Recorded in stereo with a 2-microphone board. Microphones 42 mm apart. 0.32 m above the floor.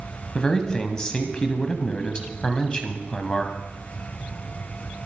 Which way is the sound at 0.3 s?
20° left (ahead or behind).